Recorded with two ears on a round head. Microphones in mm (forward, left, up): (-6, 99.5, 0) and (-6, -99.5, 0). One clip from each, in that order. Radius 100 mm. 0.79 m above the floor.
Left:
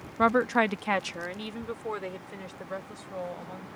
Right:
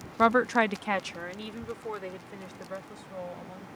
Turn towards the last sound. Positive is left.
turn(degrees=10)  # may be behind; listen again after turning